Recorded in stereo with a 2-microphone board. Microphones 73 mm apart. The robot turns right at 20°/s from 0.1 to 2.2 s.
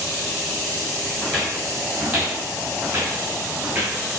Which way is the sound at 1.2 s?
10° left (ahead or behind).